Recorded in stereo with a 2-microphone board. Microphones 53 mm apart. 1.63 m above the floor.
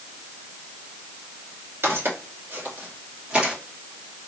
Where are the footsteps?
55° right (ahead or behind), 2.5 m; by 3.5 s 15° right (ahead or behind), 2.5 m.